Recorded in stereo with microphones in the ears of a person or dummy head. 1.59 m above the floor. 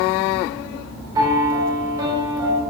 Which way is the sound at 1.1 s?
20° right (ahead or behind).